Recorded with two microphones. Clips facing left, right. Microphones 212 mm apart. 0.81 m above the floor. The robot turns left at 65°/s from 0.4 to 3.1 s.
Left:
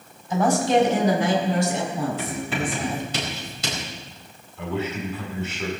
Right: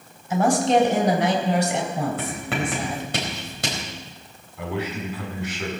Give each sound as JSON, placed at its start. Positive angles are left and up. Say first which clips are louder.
{"t": 0.3, "sound": "a woman speaking", "louder": "right 1 dB", "azimuth_deg": -5, "distance_m": 3.5}
{"t": 2.2, "sound": "writing", "louder": "even", "side_deg": -60, "distance_m": 4.5}
{"t": 4.6, "sound": "a man speaking", "louder": "left 1 dB", "side_deg": -15, "distance_m": 6.5}